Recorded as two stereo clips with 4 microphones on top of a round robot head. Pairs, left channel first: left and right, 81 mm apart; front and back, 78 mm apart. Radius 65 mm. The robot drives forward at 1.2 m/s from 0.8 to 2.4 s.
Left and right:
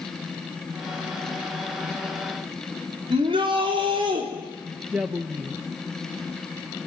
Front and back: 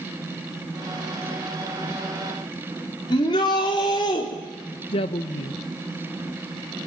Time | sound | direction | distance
3.1 | a shout | 50° right | 4 m
4.9 | a woman speaking | 10° right | 0.9 m